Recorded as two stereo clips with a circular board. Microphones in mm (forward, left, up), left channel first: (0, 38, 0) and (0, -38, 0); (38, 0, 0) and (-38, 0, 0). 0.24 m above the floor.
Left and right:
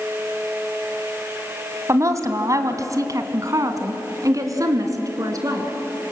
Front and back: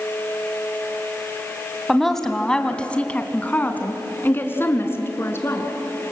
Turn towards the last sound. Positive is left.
turn(degrees=-55)